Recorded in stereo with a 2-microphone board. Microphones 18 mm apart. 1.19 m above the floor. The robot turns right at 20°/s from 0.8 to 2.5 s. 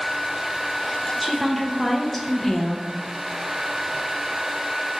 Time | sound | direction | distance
1.2 | a woman speaking | 5° left (ahead or behind) | 0.5 m